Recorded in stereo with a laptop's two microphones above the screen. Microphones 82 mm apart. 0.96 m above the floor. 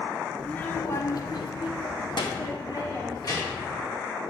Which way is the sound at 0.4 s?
10° left (ahead or behind).